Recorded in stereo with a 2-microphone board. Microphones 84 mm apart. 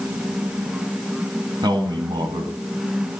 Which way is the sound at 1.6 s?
60° right (ahead or behind).